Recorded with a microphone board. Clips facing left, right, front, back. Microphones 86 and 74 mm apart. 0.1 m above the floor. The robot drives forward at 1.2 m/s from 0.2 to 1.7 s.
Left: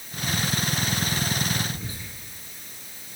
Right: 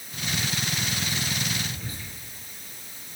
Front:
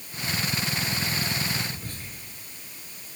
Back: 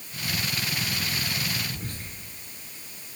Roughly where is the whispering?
Behind.